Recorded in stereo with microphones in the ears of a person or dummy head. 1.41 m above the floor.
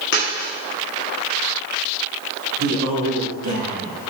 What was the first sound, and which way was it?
A dropped coin, 65° left (ahead or behind).